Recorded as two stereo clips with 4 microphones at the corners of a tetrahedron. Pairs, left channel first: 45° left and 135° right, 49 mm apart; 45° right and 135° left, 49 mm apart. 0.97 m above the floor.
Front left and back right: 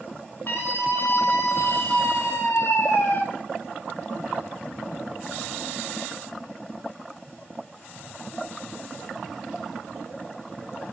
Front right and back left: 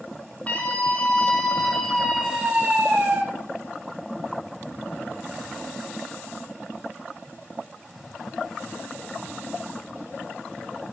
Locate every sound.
0.5 s a scream: 10° left, 4 m; by 3.2 s 80° left, 2.5 m